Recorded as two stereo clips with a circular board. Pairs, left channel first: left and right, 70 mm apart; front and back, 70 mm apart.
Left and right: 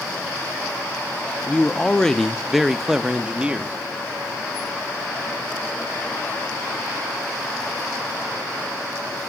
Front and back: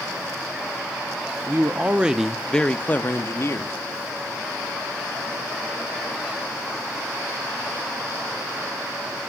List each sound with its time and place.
1.5 s a man speaking: 150° left, 0.8 m; by 3.8 s 25° right, 1.0 m